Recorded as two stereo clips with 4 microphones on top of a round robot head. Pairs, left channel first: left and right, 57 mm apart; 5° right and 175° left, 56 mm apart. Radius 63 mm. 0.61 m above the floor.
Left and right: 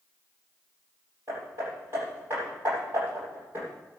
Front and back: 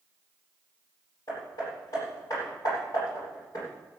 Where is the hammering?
40° right, 9.5 m.